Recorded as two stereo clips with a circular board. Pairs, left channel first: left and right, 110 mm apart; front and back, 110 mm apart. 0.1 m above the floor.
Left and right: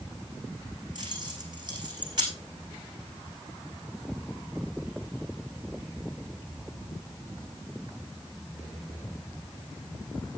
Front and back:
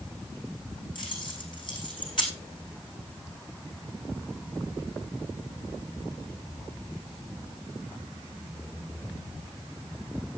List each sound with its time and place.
0.9 s keys jangling: 45° right, 4.5 m